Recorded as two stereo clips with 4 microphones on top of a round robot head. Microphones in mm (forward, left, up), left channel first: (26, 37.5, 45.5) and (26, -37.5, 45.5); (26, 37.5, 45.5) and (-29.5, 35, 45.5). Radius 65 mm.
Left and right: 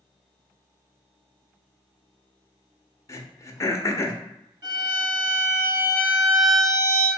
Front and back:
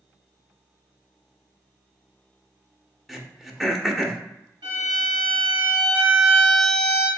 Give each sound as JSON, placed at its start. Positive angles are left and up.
{"t": 3.1, "sound": "throat clearing", "azimuth_deg": 95, "distance_m": 0.6}
{"t": 4.6, "sound": "a violin", "azimuth_deg": -145, "distance_m": 1.6}